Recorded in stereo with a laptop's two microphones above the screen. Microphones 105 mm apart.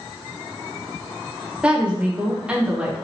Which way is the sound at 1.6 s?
10° right (ahead or behind).